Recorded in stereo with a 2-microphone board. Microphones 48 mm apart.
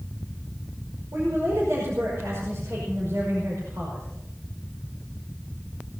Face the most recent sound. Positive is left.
turn(degrees=-70)  # may be behind; listen again after turning